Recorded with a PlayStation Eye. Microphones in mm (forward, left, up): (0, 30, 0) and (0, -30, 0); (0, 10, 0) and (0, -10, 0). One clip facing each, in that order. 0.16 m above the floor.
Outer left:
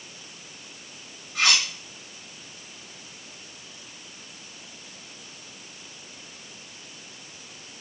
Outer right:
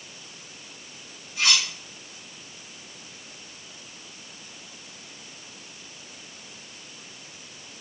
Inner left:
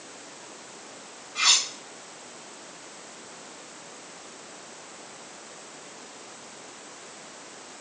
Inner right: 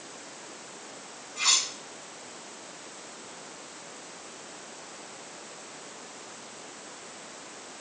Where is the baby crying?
No baby crying in this recording.